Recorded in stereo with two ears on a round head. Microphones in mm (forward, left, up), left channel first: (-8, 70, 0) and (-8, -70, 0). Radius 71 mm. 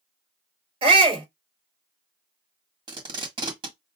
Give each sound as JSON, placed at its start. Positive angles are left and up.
{"t": 0.8, "sound": "a shout", "side_deg": -35, "distance_m": 3.0}
{"t": 2.9, "sound": "tape being pulled", "side_deg": -30, "distance_m": 1.5}